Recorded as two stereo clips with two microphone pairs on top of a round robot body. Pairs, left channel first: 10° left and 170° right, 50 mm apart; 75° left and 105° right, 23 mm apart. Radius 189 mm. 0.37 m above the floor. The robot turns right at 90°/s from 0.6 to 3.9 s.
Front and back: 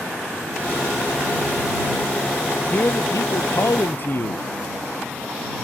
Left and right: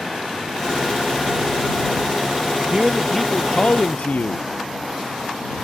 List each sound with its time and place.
2.7 s a man speaking: 50° right; by 4.5 s 55° left